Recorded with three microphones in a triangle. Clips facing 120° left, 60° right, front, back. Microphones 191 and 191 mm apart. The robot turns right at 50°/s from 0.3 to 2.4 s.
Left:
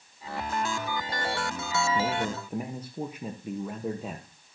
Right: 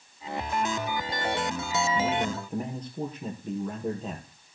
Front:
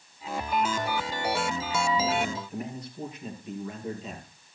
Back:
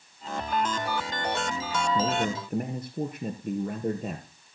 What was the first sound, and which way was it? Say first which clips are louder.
A man speaking: right 1 dB, back 1 dB; 175° left.